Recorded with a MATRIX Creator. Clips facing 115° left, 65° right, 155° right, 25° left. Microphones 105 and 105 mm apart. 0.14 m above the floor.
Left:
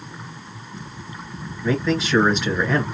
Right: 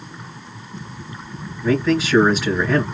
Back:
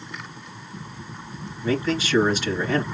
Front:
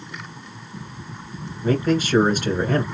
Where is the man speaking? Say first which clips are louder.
Right 4 dB, front 4 dB; 20° left, 2.5 m.